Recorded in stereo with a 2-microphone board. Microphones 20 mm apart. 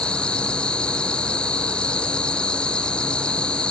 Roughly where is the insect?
Left.